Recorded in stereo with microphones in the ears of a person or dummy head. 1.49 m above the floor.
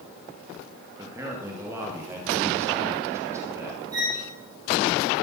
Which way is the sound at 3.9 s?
25° right (ahead or behind).